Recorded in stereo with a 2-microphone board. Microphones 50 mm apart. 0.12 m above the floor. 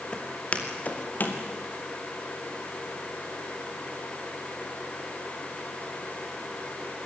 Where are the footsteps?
25° left (ahead or behind), 4 m; by 1.4 s 45° left (ahead or behind), 4 m.